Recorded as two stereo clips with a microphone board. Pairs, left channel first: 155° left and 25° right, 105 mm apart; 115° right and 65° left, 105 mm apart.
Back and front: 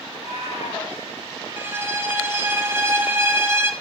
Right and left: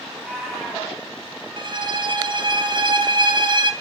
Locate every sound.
0.1 s a cat meowing: 160° left, 2.5 m
1.6 s a violin: 40° left, 0.5 m